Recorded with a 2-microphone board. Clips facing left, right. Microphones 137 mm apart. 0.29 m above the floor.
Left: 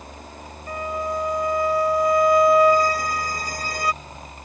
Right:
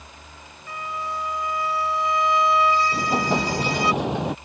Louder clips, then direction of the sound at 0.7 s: Left 5 dB; 45° left (ahead or behind).